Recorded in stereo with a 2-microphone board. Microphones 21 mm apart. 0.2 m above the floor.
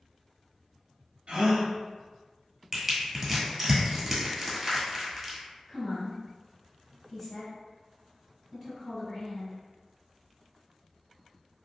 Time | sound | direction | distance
1.3 | a gasp | 55° right (ahead or behind) | 1.1 m
2.7 | crushing | 15° right (ahead or behind) | 1.2 m
5.7 | a woman speaking | centre (ahead or behind) | 1.8 m